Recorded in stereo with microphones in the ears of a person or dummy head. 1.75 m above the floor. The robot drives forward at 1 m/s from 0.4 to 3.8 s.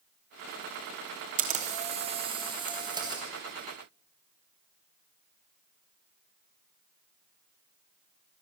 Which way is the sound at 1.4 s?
40° right (ahead or behind).